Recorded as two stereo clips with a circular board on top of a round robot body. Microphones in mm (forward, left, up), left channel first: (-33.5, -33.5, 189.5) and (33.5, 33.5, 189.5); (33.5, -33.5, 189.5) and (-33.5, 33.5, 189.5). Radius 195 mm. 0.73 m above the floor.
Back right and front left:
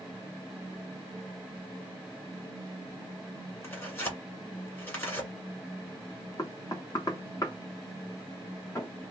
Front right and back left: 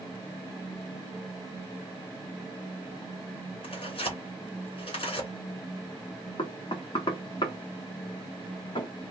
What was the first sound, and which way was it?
Tearing paper, 70° right.